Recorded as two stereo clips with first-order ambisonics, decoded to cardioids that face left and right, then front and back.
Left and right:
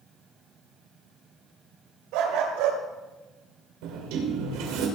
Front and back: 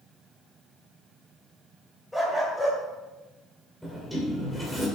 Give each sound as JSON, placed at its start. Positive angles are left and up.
{"t": 2.1, "sound": "a dog barking", "azimuth_deg": -85, "distance_m": 2.5}
{"t": 3.8, "sound": "a sliding door", "azimuth_deg": -90, "distance_m": 2.5}